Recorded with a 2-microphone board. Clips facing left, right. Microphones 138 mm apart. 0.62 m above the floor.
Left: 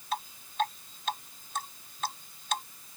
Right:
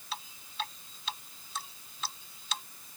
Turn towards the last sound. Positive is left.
turn(degrees=50)  # may be behind; listen again after turning